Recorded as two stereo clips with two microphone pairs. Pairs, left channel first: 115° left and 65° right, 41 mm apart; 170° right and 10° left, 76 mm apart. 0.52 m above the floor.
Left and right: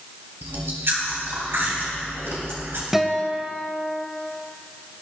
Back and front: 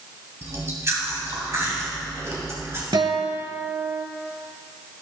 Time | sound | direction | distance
0.4 | chewing | 45° right | 3 m
2.9 | a guitar | 20° left | 1.1 m